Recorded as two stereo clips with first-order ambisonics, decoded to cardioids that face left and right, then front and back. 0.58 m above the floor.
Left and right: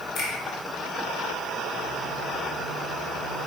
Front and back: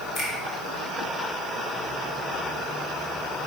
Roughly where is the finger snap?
Ahead left.